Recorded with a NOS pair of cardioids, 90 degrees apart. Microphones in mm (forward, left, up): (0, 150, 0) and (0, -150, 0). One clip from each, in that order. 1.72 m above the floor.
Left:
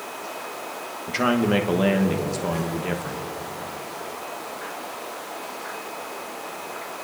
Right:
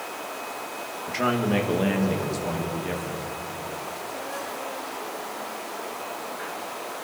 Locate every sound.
1.1 s a man speaking: 30° left, 2 m